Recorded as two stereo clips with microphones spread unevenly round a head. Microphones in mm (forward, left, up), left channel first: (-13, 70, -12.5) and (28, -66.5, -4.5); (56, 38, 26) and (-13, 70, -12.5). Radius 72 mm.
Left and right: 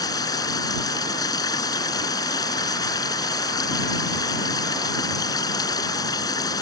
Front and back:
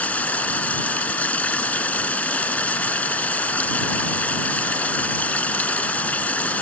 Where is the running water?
40° left.